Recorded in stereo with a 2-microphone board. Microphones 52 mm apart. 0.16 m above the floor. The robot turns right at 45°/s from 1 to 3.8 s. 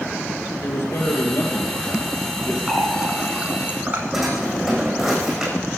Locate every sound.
0.6 s a man speaking: 70° left, 3.5 m; by 2.6 s 140° left, 3.5 m
2.7 s a running tap: 5° left (ahead or behind), 1.5 m; by 4.0 s 35° right (ahead or behind), 1.5 m
4.1 s a drawer: 10° right (ahead or behind), 5 m